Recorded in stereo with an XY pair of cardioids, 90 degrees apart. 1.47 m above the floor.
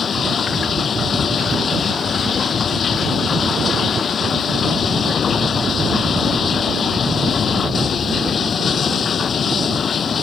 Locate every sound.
0.0 s running water: 55° left